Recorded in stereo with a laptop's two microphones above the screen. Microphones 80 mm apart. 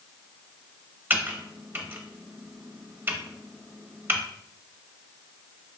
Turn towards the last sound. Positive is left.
turn(degrees=-25)  # may be behind; listen again after turning